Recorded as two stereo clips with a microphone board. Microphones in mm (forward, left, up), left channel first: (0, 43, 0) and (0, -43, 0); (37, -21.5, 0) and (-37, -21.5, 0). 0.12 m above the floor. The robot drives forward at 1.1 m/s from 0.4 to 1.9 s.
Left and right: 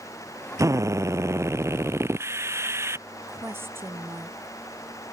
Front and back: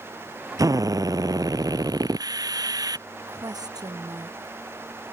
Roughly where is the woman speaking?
Behind right.